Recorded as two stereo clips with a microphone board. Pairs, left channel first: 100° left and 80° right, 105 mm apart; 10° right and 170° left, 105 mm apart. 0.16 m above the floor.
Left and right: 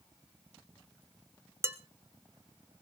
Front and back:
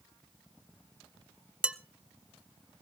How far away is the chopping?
No chopping in this recording.